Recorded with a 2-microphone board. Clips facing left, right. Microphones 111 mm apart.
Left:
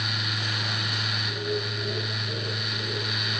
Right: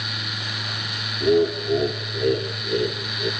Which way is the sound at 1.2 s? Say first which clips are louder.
Right 14 dB; 75° right (ahead or behind).